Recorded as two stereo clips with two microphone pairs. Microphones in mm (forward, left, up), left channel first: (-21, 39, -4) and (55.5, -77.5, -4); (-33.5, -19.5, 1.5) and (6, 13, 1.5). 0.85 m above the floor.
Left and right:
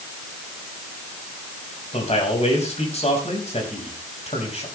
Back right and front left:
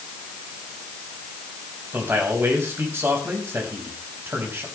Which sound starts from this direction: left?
A man speaking, at 1.9 s.